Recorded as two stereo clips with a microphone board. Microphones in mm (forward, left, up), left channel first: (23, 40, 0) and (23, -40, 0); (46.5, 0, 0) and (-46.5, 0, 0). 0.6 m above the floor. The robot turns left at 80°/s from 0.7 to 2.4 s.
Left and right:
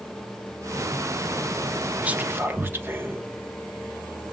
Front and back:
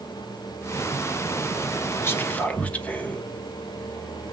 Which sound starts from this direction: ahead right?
Whispering, at 2.0 s.